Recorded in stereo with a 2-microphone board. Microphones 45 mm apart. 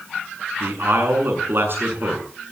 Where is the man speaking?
55° right (ahead or behind), 7.5 m.